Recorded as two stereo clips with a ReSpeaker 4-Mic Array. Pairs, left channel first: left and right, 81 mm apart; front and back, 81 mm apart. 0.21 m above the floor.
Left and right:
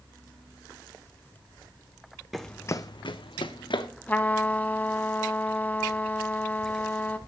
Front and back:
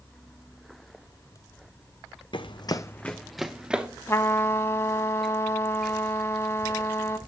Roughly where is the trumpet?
Ahead left.